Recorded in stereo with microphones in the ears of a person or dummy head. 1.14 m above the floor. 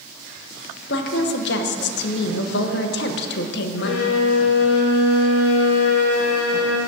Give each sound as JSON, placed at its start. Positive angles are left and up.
{"t": 0.9, "sound": "a woman speaking", "side_deg": 55, "distance_m": 0.9}
{"t": 3.8, "sound": "a violin", "side_deg": 70, "distance_m": 1.4}